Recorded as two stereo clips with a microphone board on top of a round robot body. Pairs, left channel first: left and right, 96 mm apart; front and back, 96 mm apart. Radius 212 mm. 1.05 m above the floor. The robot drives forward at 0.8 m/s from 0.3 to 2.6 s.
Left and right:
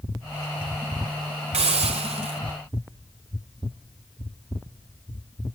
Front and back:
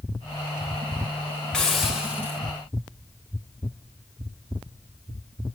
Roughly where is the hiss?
Right.